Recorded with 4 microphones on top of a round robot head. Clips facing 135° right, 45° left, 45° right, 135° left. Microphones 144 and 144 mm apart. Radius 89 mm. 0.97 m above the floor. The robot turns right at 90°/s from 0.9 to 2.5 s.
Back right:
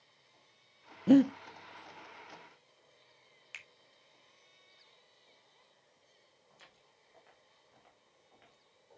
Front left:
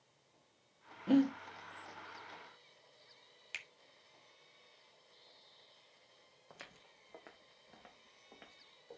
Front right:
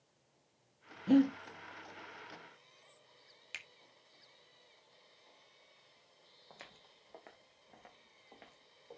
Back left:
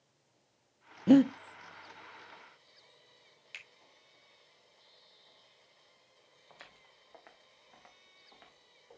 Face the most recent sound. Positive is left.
turn(degrees=10)